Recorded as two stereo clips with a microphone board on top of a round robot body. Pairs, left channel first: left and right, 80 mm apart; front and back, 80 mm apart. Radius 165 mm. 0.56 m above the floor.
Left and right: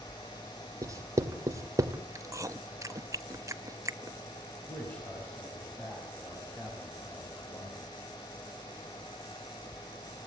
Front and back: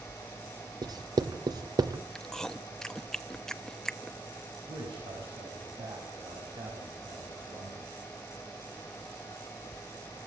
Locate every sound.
0.8 s writing: 145° right, 1.2 m
2.1 s chewing: 80° right, 1.4 m
4.7 s a man speaking: 165° left, 5.5 m